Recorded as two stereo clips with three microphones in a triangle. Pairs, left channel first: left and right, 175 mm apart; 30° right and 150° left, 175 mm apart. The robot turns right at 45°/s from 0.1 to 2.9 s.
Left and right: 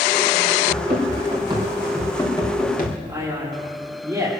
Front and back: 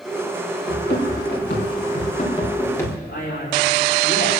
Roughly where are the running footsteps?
Ahead right.